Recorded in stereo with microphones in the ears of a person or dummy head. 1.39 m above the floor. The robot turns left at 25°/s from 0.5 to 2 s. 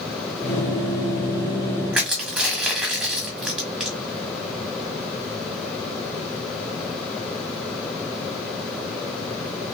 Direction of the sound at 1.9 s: Centre (ahead or behind).